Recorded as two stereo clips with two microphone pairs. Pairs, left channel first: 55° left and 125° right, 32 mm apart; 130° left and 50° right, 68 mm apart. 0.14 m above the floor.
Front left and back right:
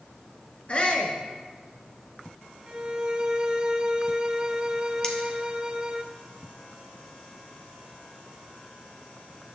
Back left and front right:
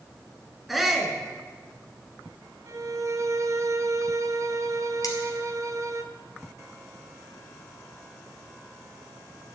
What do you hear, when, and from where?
0.7 s a shout: 40° left, 1.7 m
2.7 s a violin: 65° right, 0.7 m
5.0 s cutlery clinking: 115° left, 1.5 m